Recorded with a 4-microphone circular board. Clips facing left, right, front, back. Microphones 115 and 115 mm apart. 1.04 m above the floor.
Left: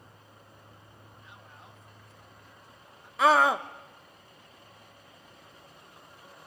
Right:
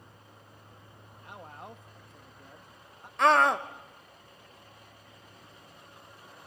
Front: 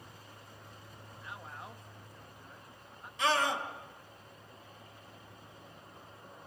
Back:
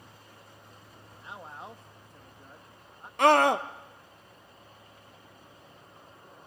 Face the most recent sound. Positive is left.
turn(degrees=175)